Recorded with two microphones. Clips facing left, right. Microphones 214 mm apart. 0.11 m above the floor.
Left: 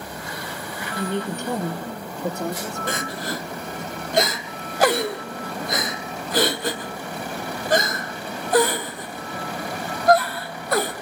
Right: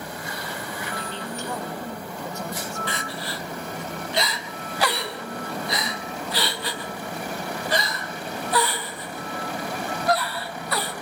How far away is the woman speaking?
About 2 m.